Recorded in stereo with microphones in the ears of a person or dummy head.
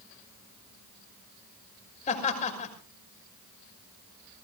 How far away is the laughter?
About 6 m.